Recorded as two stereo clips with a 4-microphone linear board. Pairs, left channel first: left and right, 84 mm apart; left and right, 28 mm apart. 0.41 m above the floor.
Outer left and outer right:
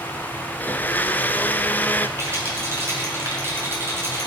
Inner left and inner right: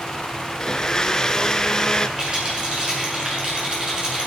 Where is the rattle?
30° right (ahead or behind), 6 m.